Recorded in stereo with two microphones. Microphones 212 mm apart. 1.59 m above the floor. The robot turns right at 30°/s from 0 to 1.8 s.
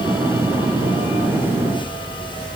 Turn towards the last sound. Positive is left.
No sound to turn to.